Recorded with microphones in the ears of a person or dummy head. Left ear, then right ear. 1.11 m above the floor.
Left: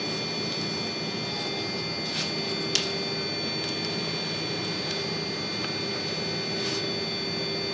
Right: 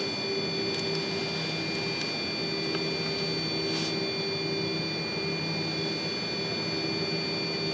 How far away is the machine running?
About 1.6 m.